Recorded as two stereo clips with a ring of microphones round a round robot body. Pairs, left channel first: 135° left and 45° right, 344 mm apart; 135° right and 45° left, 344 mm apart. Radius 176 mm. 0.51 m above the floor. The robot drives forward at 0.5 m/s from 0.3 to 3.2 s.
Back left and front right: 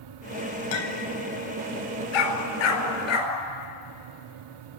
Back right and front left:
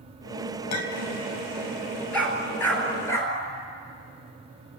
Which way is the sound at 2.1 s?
140° left.